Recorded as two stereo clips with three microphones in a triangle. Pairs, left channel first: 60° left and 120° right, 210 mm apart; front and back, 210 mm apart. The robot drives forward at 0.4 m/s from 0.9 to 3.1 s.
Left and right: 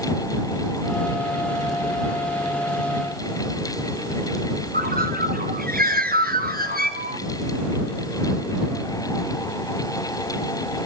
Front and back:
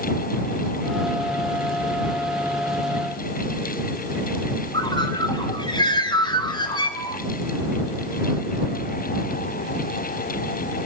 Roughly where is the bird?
Right.